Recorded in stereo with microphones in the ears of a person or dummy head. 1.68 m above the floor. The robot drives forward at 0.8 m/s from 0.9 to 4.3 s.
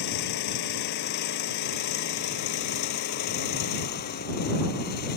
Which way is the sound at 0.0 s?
65° left (ahead or behind).